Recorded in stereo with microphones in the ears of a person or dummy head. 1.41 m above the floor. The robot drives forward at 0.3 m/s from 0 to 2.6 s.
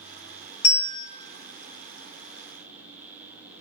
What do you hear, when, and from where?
0.6 s a bell: 55° left (ahead or behind), 0.8 m; by 1.1 s 65° left (ahead or behind), 0.7 m